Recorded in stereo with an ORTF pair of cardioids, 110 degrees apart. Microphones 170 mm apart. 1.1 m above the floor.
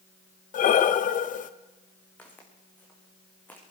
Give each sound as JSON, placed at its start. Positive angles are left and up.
{"t": 0.5, "sound": "breathing", "azimuth_deg": 50, "distance_m": 0.9}
{"t": 2.2, "sound": "footsteps", "azimuth_deg": 10, "distance_m": 5.0}